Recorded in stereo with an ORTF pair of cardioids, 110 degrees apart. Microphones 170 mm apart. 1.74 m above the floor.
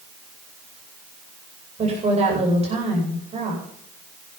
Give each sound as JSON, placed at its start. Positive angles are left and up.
{"t": 1.8, "sound": "a woman speaking", "azimuth_deg": -35, "distance_m": 10.0}